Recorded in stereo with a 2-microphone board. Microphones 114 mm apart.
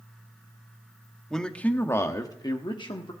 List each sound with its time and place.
1.3 s a man speaking: 5° left (ahead or behind), 1.1 m; by 3.1 s 45° left (ahead or behind), 1.3 m